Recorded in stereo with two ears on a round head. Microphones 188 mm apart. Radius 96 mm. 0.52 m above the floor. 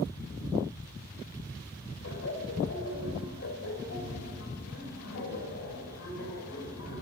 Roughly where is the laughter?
Left.